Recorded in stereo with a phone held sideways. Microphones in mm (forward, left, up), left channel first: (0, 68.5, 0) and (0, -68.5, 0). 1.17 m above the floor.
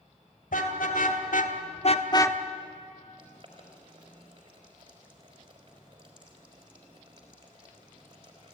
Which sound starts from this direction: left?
A car horn, at 0.5 s.